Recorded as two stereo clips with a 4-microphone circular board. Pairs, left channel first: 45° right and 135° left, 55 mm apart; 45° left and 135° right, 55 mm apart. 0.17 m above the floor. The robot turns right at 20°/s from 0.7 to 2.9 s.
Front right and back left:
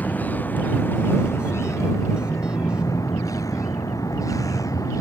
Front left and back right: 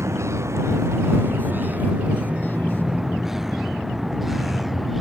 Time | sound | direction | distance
0.0 | a vehicle | 105° right | ?